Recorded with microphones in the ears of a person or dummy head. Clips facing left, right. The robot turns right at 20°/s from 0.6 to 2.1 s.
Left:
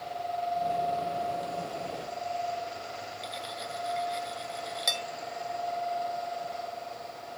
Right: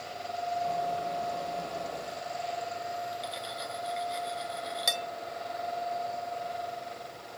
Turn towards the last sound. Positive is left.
turn(degrees=0)  # may be behind; listen again after turning